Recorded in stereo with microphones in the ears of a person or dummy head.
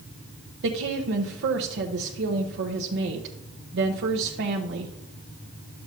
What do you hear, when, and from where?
0.6 s a woman speaking: 60° right (ahead or behind), 0.9 m